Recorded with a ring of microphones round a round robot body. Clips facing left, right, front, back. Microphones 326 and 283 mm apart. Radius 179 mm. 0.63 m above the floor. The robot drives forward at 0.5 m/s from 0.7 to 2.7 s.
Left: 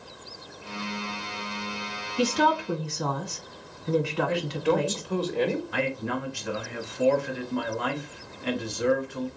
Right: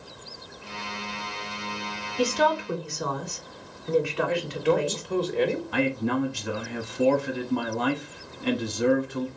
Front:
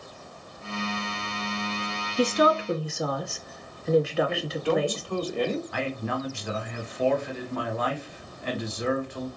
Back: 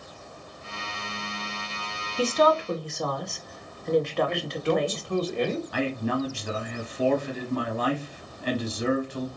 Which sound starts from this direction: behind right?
A man speaking, at 5.7 s.